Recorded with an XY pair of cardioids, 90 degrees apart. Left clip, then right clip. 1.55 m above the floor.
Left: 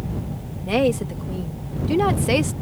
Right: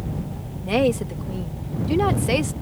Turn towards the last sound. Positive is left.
turn(degrees=10)